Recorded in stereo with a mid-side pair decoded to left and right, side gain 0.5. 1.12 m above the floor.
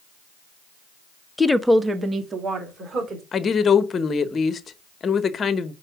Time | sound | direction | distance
1.4 | a woman speaking | 15° left | 0.7 m
3.3 | a woman speaking | 40° left | 1.1 m